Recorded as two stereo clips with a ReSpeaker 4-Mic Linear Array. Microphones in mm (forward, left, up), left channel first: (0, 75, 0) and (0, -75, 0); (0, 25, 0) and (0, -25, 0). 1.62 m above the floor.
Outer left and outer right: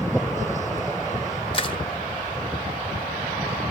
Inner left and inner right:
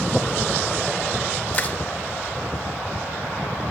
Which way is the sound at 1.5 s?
35° left (ahead or behind).